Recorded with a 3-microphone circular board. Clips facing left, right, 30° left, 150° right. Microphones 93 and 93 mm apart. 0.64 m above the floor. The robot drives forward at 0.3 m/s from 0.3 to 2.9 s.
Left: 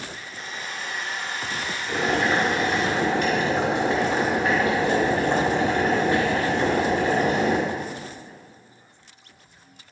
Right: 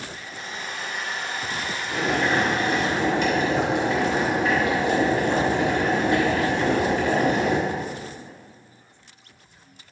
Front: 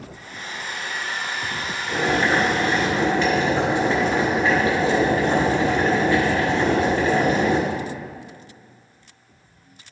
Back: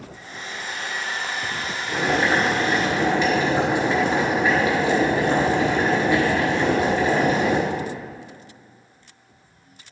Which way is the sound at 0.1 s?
90° right.